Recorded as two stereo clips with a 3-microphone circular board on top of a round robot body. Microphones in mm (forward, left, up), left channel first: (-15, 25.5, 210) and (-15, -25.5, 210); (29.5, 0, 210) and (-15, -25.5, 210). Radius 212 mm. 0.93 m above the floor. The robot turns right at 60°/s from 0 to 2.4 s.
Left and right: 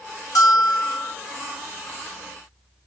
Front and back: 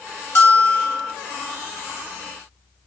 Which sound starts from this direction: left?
A bell, at 0.3 s.